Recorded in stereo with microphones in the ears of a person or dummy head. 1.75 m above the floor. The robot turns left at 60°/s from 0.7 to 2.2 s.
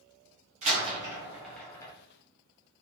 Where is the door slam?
35° right (ahead or behind), 0.9 m; by 1.9 s 25° left (ahead or behind), 0.9 m.